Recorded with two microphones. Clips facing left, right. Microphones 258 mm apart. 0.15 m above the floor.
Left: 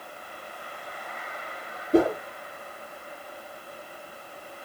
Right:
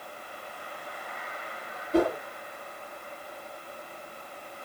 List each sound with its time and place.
1.9 s a whoosh: 55° left (ahead or behind), 1.8 m